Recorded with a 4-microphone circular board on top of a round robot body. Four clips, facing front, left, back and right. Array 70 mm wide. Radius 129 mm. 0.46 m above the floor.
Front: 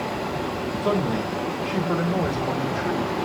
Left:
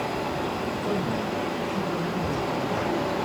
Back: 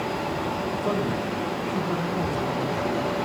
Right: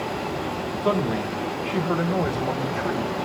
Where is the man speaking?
75° right, 3.5 m; by 3.1 s 65° right, 4.5 m.